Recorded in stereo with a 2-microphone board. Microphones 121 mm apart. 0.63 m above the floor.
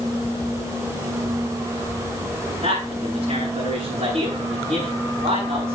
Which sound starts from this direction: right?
A man speaking, at 2.6 s.